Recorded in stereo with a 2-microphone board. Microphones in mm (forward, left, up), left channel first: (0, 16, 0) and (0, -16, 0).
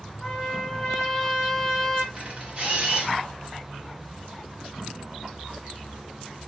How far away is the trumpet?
About 1.1 m.